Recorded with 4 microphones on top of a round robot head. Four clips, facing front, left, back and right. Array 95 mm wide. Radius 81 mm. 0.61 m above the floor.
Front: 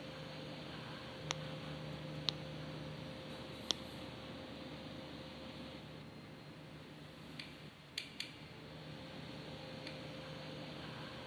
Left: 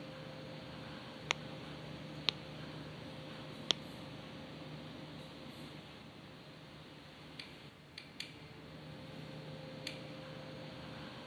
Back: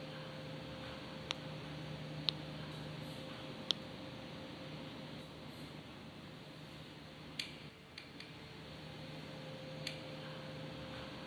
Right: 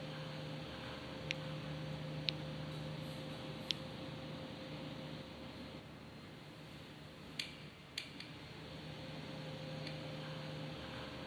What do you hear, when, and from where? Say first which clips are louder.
1.3 s a crack: left 5 dB, front 3 dB; 80° left